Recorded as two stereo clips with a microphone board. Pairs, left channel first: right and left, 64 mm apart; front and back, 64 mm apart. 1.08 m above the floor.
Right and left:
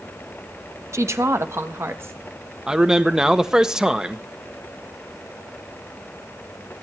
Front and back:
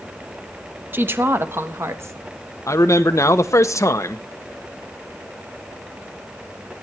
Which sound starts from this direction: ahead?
A man speaking, at 2.7 s.